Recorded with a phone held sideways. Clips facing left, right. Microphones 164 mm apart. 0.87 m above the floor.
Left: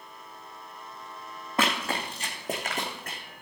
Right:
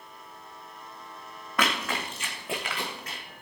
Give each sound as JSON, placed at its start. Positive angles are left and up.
{"t": 1.6, "sound": "running footsteps", "side_deg": 25, "distance_m": 3.0}